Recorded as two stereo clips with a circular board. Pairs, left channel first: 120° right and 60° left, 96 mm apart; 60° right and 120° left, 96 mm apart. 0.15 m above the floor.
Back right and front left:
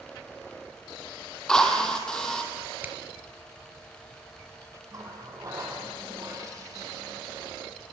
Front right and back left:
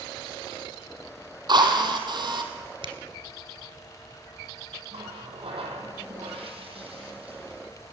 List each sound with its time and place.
1.5 s a drill: 155° left, 3 m
2.8 s a finger snap: 125° left, 2.5 m
4.9 s a running tap: 115° left, 4.5 m